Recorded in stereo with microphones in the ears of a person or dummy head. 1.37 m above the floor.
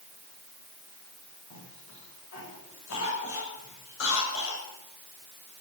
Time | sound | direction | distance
1.5 | a cough | 80° left | 8 m